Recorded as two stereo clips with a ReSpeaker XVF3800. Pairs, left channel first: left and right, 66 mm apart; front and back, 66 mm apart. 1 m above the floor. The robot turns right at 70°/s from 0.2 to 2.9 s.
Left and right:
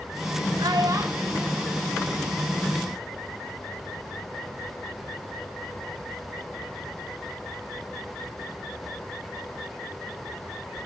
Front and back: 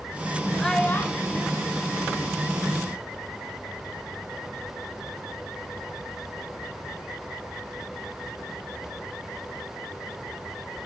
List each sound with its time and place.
0.6 s a child speaking: 85° right, 1.4 m; by 3.0 s 80° left, 1.4 m